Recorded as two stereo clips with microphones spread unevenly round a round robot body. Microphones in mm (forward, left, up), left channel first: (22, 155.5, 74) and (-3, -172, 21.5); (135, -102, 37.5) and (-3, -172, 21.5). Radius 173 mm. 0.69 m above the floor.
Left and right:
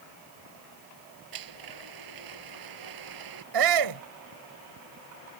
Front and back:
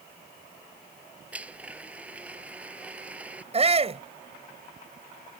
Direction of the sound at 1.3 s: 70° right.